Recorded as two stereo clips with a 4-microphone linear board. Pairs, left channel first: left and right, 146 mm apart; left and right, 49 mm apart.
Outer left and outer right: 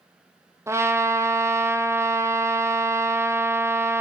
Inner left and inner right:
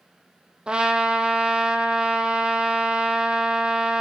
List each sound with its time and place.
0.7 s a trumpet: 20° right (ahead or behind), 1.6 m